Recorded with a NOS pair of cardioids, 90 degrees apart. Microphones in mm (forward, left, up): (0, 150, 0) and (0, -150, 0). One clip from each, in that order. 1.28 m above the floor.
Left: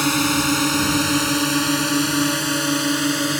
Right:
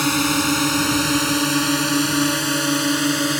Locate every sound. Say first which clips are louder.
0.0 s a drone: even; 5° right; by 3.4 s 15° right